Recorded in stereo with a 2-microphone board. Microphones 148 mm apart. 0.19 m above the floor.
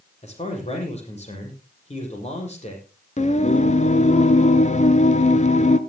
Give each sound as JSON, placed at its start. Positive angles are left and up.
{"t": 0.2, "sound": "a man speaking", "side_deg": 45, "distance_m": 6.0}
{"t": 3.2, "sound": "singing", "side_deg": 50, "distance_m": 0.9}